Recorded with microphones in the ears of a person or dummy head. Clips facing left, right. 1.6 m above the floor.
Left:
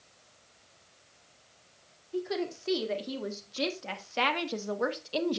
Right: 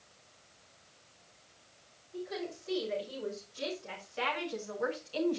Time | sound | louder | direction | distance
2.1 | a woman speaking | left 7 dB | 85° left | 4 m